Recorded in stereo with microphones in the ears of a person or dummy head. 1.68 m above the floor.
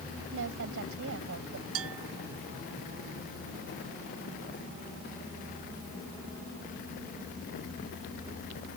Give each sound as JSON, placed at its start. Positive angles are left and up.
{"t": 0.3, "sound": "a woman speaking", "side_deg": -80}
{"t": 1.8, "sound": "a bell", "side_deg": -85}